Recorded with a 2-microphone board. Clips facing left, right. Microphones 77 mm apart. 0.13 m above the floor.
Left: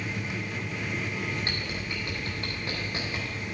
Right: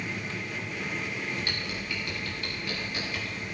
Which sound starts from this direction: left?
Typing on a keyboard, at 1.4 s.